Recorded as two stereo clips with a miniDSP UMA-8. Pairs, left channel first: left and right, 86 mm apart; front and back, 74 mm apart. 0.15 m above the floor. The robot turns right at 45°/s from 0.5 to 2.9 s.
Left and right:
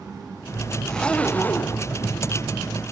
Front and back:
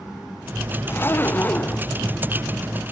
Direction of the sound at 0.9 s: 15° left.